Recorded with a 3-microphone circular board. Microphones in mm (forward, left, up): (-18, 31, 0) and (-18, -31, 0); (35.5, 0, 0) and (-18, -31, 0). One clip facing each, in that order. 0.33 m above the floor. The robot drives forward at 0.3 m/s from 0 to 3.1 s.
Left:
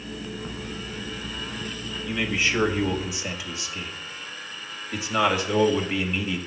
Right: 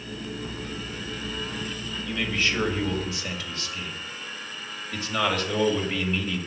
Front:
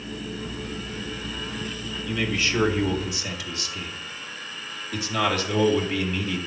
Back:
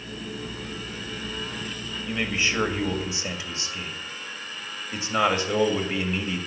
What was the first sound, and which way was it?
A man speaking, 160° left.